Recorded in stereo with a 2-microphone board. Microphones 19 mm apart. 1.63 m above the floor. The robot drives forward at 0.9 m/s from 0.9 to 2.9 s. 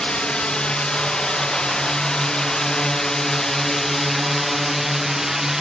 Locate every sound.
0.0 s a drone: 70° left (ahead or behind); by 5.6 s 20° right (ahead or behind)